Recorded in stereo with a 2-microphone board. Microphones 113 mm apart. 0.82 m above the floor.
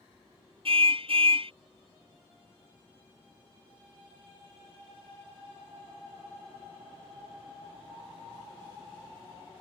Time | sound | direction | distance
0.7 | a car horn | 60° right (ahead or behind) | ?